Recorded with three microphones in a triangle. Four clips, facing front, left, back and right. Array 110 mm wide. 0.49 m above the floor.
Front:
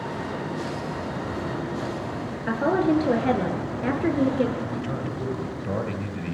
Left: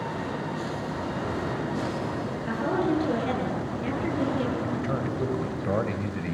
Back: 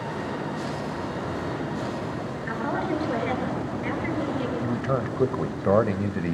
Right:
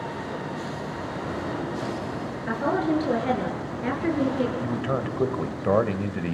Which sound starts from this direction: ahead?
A woman speaking, at 2.5 s.